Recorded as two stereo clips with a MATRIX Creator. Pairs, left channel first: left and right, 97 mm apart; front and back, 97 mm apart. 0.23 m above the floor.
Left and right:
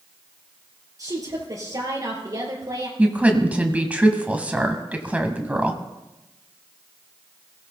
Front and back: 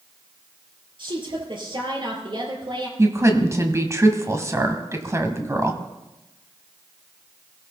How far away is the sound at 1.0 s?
About 5 m.